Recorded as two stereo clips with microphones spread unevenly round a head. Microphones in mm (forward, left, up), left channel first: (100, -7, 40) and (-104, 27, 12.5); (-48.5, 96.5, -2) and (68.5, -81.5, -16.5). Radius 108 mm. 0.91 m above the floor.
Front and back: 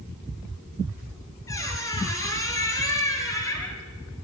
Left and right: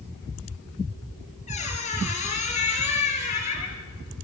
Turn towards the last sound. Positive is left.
turn(degrees=65)